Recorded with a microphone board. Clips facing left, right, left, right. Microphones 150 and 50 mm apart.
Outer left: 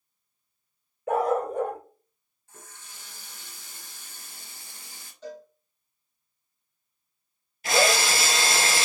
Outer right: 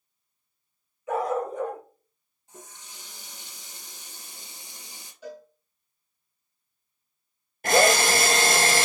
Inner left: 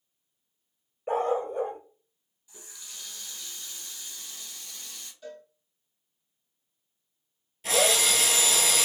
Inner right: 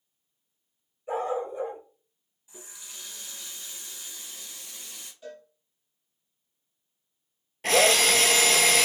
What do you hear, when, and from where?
1.1 s a dog barking: 55° left (ahead or behind), 1.5 m
2.5 s a running tap: 20° right (ahead or behind), 1.3 m
5.2 s a cowbell: 10° right (ahead or behind), 2.5 m
7.6 s a drill: 50° right (ahead or behind), 0.9 m